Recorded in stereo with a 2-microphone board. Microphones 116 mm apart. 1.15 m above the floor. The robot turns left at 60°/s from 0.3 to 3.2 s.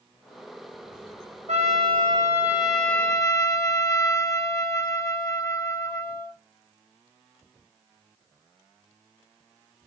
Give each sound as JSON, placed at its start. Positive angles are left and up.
{"t": 1.5, "sound": "a trumpet", "azimuth_deg": -105, "distance_m": 1.7}